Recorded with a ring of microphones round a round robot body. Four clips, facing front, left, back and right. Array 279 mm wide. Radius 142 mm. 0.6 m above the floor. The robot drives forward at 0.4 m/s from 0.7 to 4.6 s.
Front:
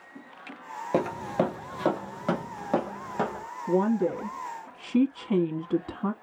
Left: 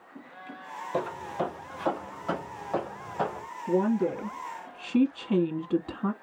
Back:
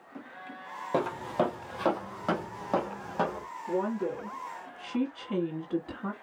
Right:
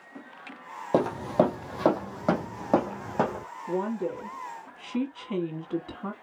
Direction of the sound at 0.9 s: 65° right.